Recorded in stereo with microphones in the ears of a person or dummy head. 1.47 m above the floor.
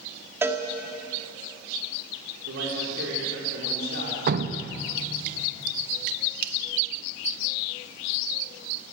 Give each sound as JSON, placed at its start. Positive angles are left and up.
{"t": 0.4, "sound": "a cowbell", "side_deg": -15, "distance_m": 1.8}
{"t": 2.5, "sound": "a man speaking", "side_deg": -80, "distance_m": 5.0}
{"t": 4.3, "sound": "dripping", "side_deg": -55, "distance_m": 1.1}